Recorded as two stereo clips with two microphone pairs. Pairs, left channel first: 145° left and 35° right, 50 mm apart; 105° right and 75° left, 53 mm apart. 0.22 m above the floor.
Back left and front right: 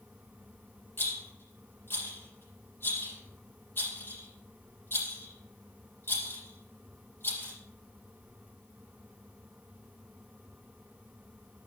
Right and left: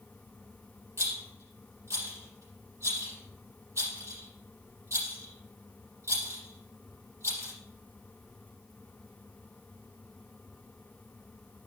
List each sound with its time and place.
1.0 s a rattle: 100° left, 6 m